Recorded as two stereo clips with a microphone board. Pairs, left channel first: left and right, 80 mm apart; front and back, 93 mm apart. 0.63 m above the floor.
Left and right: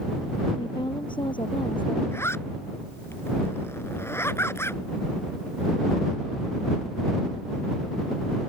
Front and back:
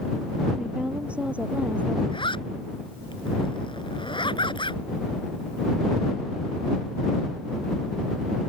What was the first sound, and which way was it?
A woman speaking, 100° left.